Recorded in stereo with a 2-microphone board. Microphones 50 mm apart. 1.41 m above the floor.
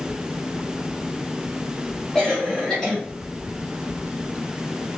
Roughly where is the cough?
Centre.